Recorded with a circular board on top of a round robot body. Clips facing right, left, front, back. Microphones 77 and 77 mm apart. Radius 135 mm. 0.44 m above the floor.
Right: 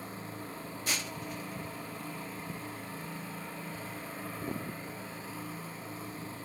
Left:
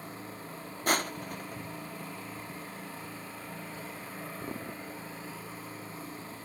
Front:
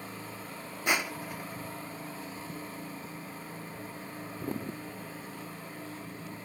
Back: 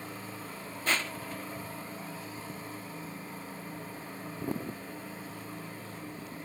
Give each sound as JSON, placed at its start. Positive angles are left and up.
{"t": 0.9, "sound": "crushing", "azimuth_deg": 70}